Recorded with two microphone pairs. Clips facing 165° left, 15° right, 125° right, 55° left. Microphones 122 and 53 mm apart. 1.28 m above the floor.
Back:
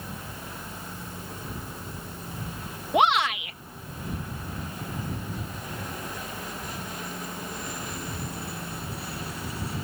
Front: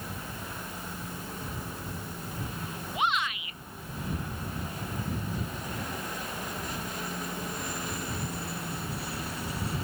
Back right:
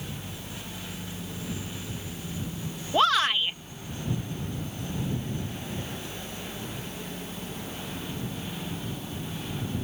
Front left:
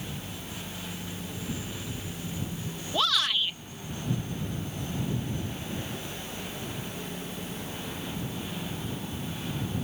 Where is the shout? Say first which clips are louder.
Back 9 dB, back right 5 dB; straight behind.